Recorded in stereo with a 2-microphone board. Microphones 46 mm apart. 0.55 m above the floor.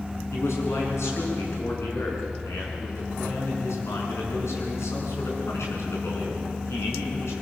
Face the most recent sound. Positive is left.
turn(degrees=75)  # may be behind; listen again after turning